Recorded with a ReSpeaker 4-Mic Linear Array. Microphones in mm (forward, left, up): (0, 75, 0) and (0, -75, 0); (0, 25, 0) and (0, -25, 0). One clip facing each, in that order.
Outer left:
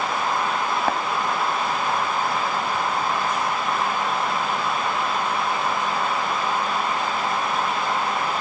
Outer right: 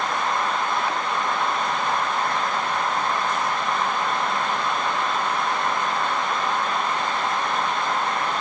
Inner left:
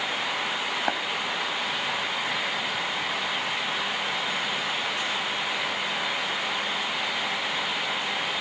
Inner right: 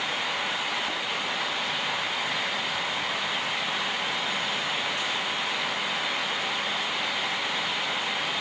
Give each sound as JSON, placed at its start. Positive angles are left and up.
{"t": 0.9, "sound": "tapping", "side_deg": 60, "distance_m": 2.5}